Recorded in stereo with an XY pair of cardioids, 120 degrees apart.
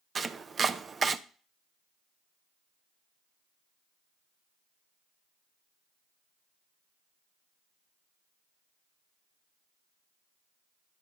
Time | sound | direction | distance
0.1 | chopping | 30° right | 0.6 m